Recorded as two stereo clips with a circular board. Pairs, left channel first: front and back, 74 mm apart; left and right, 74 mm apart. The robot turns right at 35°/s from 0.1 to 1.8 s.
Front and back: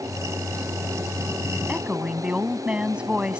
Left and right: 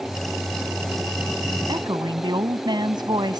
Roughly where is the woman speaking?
Right.